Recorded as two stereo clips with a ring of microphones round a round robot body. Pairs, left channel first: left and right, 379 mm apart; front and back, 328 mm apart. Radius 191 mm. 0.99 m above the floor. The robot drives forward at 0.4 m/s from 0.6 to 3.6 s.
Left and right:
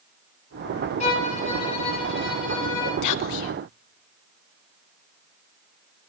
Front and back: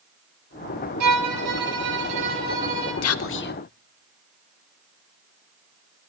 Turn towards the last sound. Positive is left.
turn(degrees=65)